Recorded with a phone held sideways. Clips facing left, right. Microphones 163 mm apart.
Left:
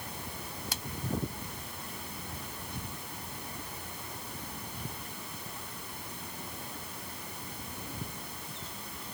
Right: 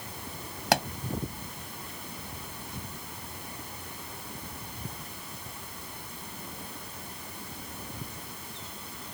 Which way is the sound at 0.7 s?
75° right (ahead or behind).